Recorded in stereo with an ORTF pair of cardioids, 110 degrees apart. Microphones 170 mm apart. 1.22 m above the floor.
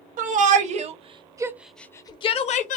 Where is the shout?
60° right, 1.0 m; by 2.8 s 65° left, 0.7 m.